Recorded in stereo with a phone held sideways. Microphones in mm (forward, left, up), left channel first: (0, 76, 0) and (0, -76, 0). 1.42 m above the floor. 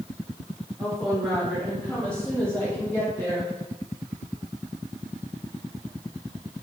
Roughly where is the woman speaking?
Centre.